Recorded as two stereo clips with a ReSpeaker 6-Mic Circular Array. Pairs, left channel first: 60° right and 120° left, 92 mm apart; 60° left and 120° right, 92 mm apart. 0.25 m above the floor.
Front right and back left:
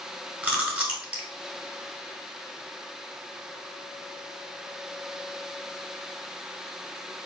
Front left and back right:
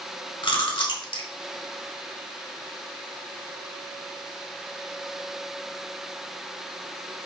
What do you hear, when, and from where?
0.4 s chewing: 40° left, 0.9 m